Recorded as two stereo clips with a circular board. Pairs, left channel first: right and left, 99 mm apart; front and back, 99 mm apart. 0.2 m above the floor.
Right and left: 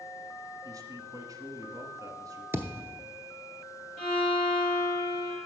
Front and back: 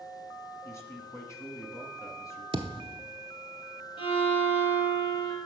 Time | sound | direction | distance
0.6 | a man speaking | 50° left | 1.6 m
2.5 | a thud | 155° left | 0.7 m
4.0 | a violin | 10° right | 3.5 m